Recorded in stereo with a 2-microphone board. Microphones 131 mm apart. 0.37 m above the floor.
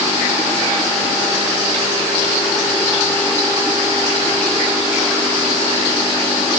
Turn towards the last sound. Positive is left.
No sound to turn to.